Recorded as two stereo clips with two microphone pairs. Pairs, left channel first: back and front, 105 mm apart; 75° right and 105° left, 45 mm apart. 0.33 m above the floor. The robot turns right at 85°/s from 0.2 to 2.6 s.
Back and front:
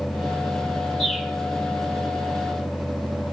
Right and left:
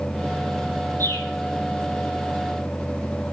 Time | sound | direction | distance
1.0 | a bird | 90° right | 7.5 m